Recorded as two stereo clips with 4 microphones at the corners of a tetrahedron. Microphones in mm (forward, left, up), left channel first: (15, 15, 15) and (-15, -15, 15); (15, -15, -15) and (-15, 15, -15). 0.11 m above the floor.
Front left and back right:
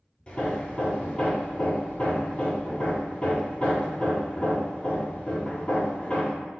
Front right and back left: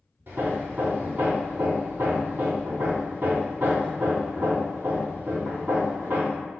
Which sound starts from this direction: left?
Hammering, at 0.3 s.